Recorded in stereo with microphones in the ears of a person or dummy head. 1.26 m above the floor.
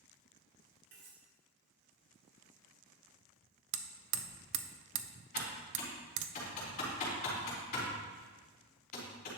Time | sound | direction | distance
0.9 | cutlery clinking | 60° right (ahead or behind) | 3.5 m
3.7 | hammering | 60° right (ahead or behind) | 0.6 m
5.3 | typing on a keyboard | 45° left (ahead or behind) | 3.5 m